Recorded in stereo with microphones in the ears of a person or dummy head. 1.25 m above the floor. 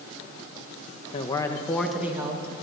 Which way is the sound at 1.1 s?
25° left (ahead or behind).